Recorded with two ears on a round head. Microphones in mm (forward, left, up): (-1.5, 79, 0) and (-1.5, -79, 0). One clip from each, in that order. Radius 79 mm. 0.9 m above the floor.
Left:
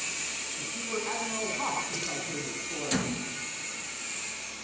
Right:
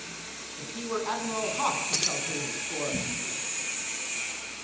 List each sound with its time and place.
0.6 s a man speaking: 65° right (ahead or behind), 8 m
1.9 s keys jangling: 45° right (ahead or behind), 1.8 m